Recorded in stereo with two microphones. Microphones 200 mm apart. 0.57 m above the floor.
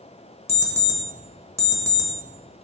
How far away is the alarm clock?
About 0.9 m.